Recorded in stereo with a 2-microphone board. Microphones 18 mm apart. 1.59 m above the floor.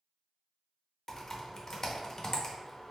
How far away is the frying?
No frying in this recording.